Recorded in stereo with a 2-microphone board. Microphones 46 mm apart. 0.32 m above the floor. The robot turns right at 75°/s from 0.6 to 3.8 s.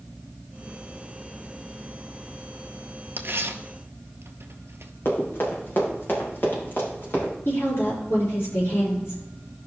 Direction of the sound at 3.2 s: 55° right (ahead or behind).